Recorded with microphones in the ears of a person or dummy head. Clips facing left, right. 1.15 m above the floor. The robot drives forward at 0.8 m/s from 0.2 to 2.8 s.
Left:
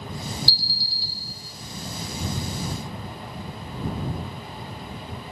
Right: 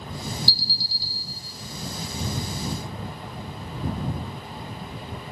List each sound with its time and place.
0.5 s an alarm: 50° right (ahead or behind), 0.6 m; by 1.1 s 70° right (ahead or behind), 0.5 m